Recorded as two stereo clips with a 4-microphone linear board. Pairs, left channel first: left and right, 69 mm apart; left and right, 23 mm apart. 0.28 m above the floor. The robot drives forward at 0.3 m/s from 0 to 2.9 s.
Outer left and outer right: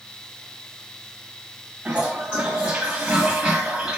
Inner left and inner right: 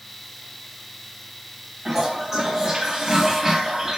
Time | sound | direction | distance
1.9 | a toilet flushing | 20° right (ahead or behind) | 1.0 m